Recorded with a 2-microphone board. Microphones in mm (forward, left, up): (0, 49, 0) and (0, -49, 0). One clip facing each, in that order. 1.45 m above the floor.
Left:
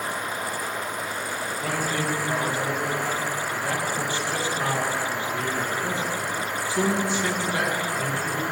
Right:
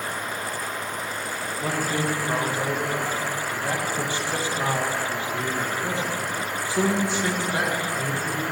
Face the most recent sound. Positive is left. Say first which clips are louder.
# right 2 dB
turn(degrees=-20)  # may be behind; listen again after turning